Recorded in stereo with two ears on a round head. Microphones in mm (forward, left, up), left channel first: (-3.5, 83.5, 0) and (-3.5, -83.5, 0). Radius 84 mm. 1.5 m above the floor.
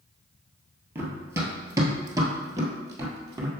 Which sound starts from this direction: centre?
Running footsteps, at 0.9 s.